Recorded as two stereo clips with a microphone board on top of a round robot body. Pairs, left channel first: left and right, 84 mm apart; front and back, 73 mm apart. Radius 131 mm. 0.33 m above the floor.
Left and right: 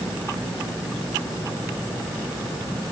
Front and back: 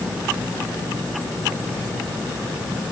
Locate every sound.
Only background noise.